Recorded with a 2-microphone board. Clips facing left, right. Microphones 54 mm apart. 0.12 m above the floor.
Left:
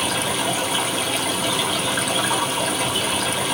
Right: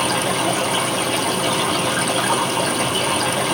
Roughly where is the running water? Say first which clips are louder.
Right 3 dB; right.